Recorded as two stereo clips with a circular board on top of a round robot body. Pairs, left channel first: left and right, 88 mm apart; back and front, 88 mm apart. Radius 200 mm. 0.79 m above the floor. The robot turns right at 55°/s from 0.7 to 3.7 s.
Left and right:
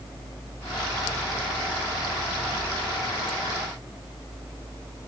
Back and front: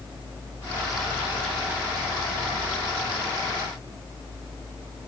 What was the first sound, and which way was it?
Only background noise.